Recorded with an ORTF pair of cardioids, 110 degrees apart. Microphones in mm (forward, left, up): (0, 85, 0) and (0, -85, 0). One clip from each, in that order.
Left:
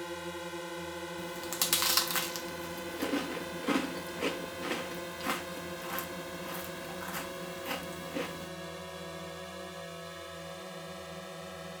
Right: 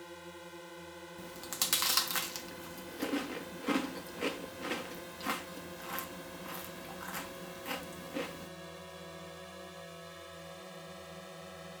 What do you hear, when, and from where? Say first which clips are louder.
0.0 s a drone: left 9 dB; 50° left; by 11.8 s 25° left
1.2 s chewing: left 2 dB; 10° left